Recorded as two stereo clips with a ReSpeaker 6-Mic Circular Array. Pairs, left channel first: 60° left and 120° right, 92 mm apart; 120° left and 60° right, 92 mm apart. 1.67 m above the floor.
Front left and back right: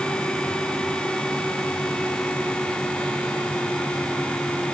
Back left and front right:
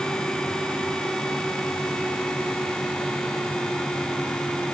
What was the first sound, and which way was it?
Only background noise.